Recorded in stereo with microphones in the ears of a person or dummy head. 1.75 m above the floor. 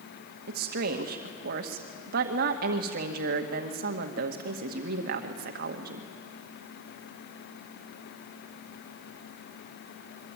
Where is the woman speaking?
60° right (ahead or behind), 1.9 m.